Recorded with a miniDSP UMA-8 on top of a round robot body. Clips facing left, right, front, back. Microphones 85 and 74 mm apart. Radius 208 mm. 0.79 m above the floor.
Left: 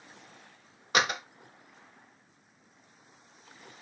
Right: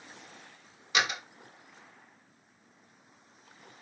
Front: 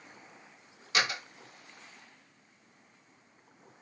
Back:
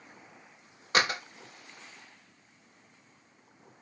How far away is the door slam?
About 0.8 m.